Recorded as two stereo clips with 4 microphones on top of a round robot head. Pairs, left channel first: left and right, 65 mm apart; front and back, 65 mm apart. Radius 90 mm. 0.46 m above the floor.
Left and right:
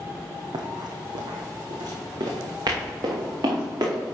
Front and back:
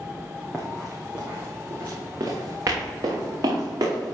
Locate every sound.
0.5 s running footsteps: 80° right, 1.9 m; by 4.2 s 135° right, 5 m